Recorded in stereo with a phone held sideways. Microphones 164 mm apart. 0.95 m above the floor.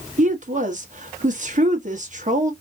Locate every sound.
0.2 s a woman speaking: 50° right (ahead or behind), 1.5 m